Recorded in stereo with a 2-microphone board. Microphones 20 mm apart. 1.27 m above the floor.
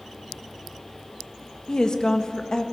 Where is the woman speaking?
35° left (ahead or behind), 1.5 m.